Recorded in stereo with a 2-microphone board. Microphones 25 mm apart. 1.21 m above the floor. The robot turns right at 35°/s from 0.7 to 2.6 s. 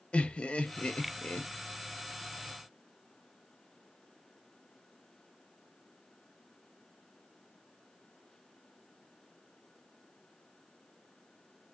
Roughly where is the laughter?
Left.